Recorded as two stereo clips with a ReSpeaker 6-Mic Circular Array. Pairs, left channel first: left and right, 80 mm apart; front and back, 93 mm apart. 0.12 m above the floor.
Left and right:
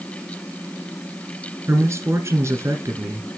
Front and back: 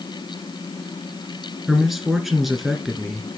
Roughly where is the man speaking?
Right.